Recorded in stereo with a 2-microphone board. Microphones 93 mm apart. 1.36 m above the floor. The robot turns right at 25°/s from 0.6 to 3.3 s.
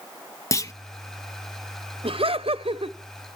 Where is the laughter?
70° right (ahead or behind), 0.8 m.